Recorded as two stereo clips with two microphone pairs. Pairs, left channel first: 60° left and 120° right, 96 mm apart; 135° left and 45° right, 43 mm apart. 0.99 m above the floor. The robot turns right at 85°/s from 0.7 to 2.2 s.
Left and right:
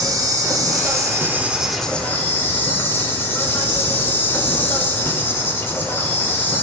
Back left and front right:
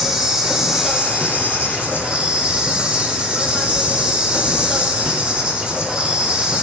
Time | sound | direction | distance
0.0 | an insect | 120° right | 0.8 m